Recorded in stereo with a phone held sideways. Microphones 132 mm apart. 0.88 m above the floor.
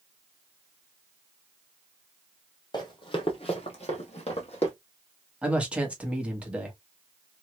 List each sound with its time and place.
2.7 s running footsteps: 35° left (ahead or behind), 1.3 m; by 4.7 s 50° left (ahead or behind), 1.8 m
5.4 s a man speaking: 10° right (ahead or behind), 1.4 m